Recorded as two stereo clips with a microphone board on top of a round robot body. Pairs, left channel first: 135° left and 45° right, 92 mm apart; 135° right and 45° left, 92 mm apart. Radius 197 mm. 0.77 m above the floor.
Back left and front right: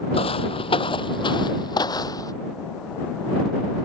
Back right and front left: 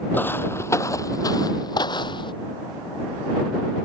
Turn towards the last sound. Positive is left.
turn(degrees=-175)